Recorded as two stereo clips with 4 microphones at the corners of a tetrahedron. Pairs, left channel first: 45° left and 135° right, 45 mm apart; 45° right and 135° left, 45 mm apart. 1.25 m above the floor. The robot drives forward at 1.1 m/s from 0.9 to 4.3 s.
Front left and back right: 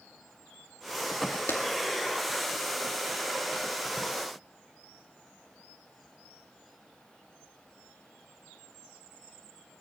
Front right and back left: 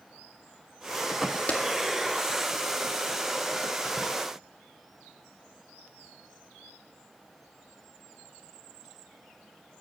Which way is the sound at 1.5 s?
15° left.